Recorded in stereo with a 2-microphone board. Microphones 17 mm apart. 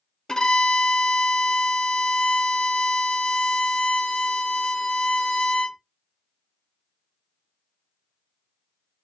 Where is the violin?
40° left (ahead or behind), 0.8 m.